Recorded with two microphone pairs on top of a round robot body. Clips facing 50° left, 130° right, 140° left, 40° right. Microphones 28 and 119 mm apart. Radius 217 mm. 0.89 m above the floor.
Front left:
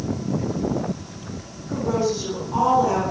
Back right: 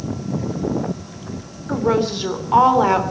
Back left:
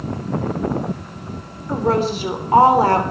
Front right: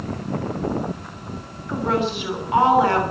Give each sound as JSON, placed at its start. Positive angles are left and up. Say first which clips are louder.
{"t": 1.7, "sound": "a woman speaking", "louder": "back right 4 dB, back left 4 dB", "azimuth_deg": -170, "distance_m": 3.5}